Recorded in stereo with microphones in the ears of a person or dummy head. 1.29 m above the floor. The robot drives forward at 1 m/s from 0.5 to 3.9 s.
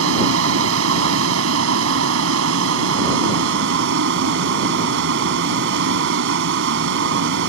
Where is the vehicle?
80° right; by 7.5 s 65° right (ahead or behind).